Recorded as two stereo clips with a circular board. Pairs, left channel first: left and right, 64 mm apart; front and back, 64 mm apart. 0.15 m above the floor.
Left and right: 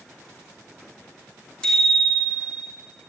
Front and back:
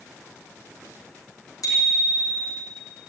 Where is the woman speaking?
No woman speaking in this recording.